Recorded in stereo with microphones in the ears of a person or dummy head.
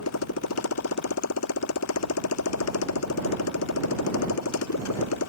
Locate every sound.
0.0 s a motorcycle: 85° left